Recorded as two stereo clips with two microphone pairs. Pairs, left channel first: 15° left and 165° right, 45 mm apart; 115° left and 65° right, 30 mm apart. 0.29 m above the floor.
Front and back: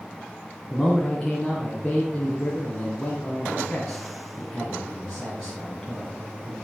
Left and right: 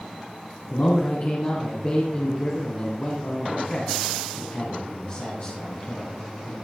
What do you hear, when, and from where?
0.7 s a man speaking: 95° left, 2.5 m